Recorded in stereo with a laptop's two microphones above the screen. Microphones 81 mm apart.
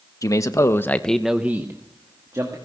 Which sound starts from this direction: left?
A man speaking, at 0.2 s.